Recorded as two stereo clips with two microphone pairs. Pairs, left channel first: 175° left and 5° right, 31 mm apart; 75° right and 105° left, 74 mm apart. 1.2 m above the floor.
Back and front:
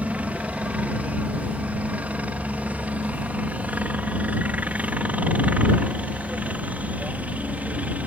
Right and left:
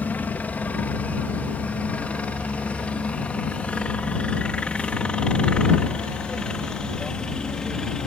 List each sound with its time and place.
0.0 s a helicopter: 15° right; by 8.1 s 5° left